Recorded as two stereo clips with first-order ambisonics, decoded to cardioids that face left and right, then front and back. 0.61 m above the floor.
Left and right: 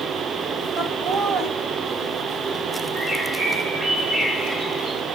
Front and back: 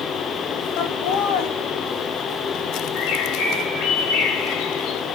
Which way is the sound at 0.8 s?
20° right.